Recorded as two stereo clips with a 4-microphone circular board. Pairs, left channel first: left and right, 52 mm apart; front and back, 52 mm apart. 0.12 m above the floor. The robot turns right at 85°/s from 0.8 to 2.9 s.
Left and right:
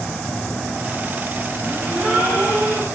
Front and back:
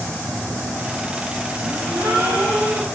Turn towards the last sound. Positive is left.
turn(degrees=-110)